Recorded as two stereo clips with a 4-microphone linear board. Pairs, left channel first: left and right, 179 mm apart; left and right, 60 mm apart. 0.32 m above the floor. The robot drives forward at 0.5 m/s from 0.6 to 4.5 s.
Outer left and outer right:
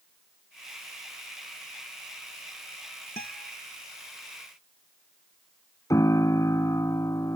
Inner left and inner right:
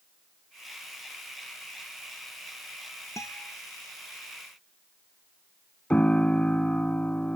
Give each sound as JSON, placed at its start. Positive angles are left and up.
{"t": 3.2, "sound": "a guitar", "side_deg": 60}
{"t": 5.9, "sound": "a piano", "side_deg": 20}